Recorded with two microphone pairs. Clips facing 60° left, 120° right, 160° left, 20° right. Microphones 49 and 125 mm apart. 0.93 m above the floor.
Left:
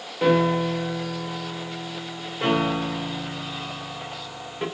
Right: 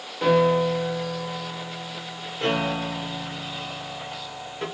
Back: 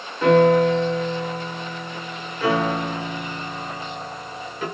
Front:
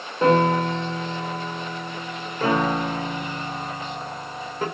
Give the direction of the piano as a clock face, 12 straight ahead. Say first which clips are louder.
Right 1 dB, back 4 dB; 12 o'clock.